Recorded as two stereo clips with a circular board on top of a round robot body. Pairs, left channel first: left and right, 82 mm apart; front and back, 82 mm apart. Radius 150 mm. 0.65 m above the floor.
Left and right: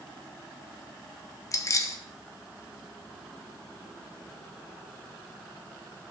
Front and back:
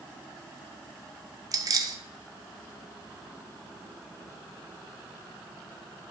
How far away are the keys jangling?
About 0.6 m.